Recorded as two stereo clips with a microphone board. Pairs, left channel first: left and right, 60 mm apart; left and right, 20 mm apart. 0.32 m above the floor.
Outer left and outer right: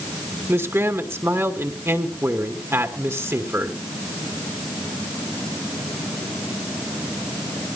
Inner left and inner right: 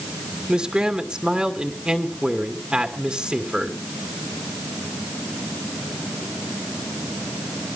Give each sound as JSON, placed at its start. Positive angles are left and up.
{"t": 0.5, "sound": "a man speaking", "side_deg": -45, "distance_m": 2.5}